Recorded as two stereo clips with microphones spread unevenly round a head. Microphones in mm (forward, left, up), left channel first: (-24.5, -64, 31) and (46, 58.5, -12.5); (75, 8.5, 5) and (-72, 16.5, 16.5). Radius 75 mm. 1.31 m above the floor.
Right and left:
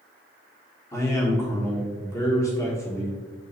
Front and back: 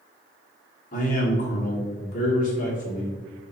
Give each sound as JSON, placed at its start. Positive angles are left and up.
{"t": 0.9, "sound": "a man speaking", "azimuth_deg": -50, "distance_m": 1.2}